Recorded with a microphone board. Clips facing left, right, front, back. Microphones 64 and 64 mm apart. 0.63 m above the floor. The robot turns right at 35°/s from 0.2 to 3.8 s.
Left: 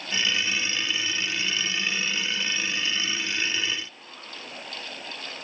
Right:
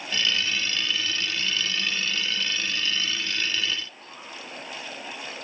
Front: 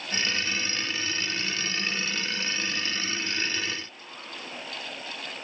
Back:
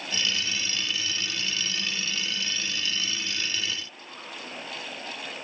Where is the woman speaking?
I don't hear a woman speaking.